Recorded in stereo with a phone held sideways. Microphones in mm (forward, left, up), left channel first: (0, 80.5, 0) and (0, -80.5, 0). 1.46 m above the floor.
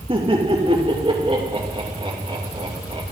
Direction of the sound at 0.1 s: 35° right (ahead or behind).